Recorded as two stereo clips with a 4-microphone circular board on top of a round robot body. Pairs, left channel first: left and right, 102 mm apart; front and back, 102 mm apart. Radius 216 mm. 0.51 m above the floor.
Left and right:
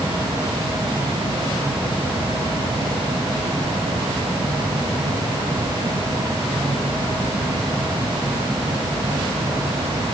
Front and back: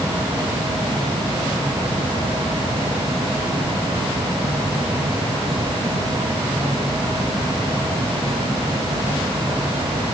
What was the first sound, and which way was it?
Only background noise.